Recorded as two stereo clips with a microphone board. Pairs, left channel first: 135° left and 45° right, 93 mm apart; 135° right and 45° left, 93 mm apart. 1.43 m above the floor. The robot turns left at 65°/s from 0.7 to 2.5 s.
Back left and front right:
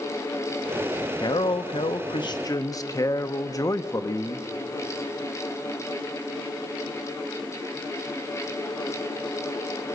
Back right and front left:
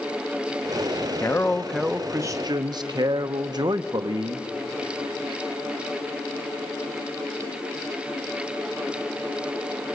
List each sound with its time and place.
1.2 s a man speaking: 170° left, 0.9 m; by 4.5 s 85° left, 0.9 m